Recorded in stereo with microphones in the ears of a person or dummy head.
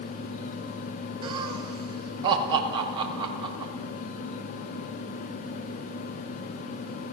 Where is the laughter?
25° right (ahead or behind), 5.5 m.